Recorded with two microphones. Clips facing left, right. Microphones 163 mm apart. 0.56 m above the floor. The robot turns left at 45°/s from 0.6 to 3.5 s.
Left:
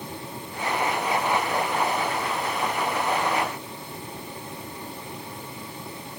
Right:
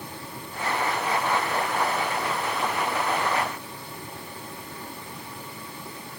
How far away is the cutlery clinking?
No cutlery clinking in this recording.